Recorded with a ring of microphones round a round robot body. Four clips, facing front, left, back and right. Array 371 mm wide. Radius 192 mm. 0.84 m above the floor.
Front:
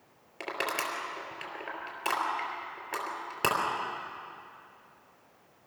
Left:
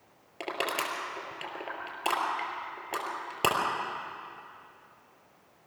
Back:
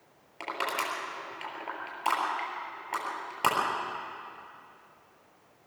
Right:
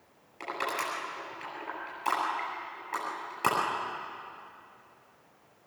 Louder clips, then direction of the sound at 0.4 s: Left 1 dB, back 1 dB; 70° left.